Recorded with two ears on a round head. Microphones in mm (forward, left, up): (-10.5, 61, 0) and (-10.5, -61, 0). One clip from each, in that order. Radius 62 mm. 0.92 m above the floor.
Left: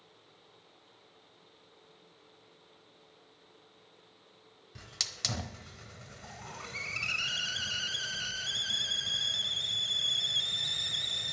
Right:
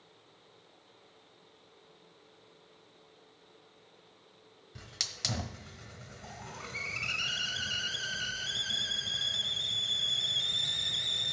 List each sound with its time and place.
4.8 s a hiss: 15° left (ahead or behind), 1.0 m